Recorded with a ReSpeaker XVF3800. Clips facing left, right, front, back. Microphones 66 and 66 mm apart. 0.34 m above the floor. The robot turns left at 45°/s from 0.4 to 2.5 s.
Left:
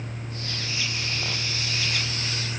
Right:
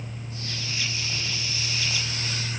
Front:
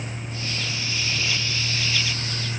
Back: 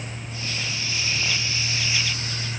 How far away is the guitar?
I don't hear a guitar.